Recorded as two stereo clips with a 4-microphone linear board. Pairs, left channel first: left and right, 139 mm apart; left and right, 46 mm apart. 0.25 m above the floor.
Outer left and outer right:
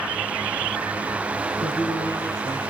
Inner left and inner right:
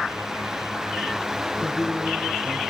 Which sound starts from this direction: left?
A man speaking, at 1.6 s.